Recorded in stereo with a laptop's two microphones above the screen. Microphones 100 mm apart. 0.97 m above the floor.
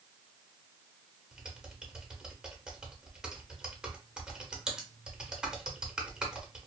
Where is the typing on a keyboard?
5° right (ahead or behind), 0.9 m.